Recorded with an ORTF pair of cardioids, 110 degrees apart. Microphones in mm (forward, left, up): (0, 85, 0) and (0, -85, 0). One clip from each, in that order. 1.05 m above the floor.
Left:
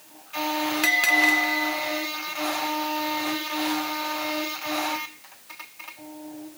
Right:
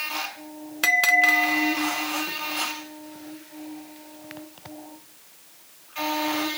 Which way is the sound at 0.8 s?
10° right.